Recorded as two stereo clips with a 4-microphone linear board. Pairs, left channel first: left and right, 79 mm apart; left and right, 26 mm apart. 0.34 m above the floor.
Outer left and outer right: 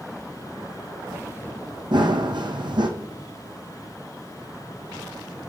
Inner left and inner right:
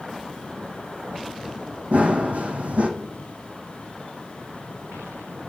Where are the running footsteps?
65° right (ahead or behind), 0.8 m.